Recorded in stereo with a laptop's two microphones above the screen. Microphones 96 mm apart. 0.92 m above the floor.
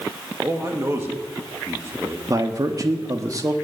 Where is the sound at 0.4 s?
30° right (ahead or behind), 1.7 m.